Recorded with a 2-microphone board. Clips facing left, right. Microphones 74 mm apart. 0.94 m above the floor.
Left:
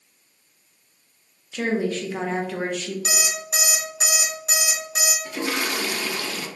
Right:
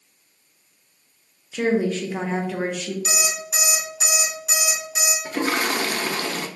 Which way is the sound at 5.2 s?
45° right (ahead or behind).